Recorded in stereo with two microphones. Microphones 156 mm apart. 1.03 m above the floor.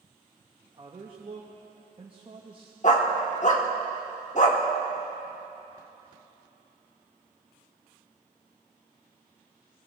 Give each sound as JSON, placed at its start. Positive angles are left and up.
{"t": 0.6, "sound": "a man speaking", "side_deg": -35, "distance_m": 1.0}
{"t": 2.8, "sound": "a dog barking", "side_deg": 50, "distance_m": 1.1}